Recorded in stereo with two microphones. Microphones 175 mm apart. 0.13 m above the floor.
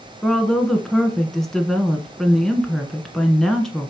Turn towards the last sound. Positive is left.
turn(degrees=5)  # may be behind; listen again after turning